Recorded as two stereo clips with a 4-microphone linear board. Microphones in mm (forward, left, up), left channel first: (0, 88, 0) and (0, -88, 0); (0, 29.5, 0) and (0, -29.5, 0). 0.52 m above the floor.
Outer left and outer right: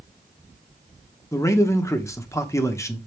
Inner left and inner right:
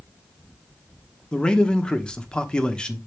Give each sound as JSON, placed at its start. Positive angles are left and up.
{"t": 1.3, "sound": "a man speaking", "side_deg": 15, "distance_m": 0.9}